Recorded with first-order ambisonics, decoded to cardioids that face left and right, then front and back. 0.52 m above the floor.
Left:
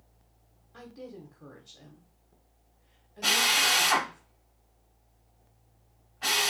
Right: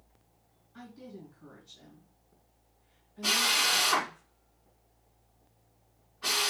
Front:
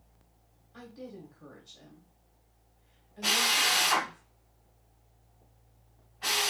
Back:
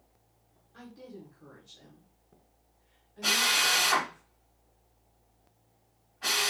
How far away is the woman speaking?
About 1.3 m.